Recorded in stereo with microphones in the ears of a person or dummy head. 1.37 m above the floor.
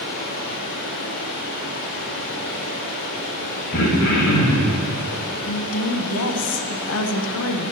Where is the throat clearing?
55° left (ahead or behind), 1.6 m.